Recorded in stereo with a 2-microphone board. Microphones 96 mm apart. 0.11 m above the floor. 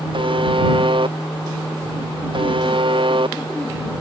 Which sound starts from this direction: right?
A buzzer, at 0.1 s.